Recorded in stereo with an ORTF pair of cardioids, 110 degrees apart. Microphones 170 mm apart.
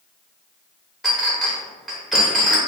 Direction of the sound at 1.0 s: Straight ahead.